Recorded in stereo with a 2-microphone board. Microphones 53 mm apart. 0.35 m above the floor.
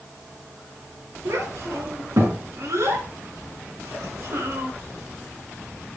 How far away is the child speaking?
About 4 m.